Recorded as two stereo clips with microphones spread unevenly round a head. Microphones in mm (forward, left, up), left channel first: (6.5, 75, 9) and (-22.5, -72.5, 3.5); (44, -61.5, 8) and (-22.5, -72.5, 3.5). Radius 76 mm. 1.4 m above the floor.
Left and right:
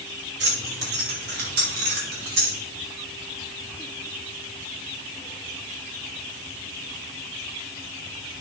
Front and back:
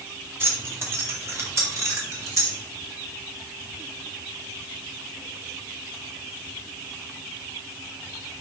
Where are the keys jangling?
115° right, 2 m; by 2.6 s 130° right, 4 m.